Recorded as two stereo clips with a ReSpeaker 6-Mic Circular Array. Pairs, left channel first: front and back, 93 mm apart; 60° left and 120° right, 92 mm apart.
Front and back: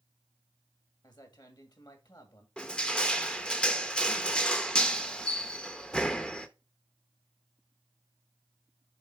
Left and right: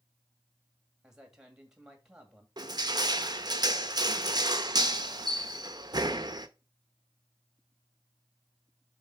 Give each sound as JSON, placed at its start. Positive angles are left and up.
{"t": 1.0, "sound": "a man speaking", "azimuth_deg": -40, "distance_m": 2.0}
{"t": 2.6, "sound": "crushing", "azimuth_deg": -80, "distance_m": 0.7}